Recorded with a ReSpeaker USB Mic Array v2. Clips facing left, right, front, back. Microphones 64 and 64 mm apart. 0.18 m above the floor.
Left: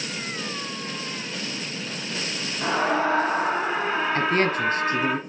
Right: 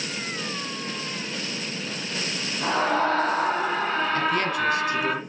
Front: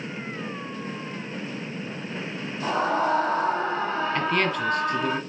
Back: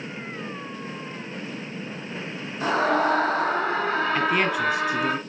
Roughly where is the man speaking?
Left.